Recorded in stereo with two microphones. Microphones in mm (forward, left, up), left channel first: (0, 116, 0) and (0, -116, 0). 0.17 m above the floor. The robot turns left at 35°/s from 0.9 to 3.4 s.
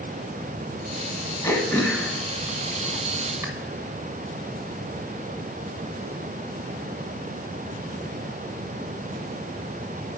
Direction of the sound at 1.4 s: 15° left (ahead or behind).